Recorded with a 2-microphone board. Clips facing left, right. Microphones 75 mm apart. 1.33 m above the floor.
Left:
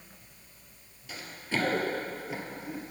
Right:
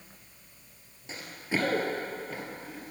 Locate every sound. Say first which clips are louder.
1.1 s running footsteps: right 1 dB; 25° right (ahead or behind), 1.4 m; by 2.9 s 25° left (ahead or behind), 1.7 m